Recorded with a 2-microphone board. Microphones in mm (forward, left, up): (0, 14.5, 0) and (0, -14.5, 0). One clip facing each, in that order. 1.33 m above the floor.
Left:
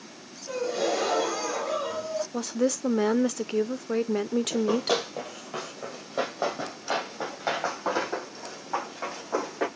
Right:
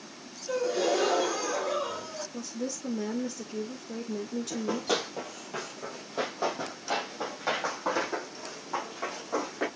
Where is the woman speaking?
70° left (ahead or behind), 0.6 m.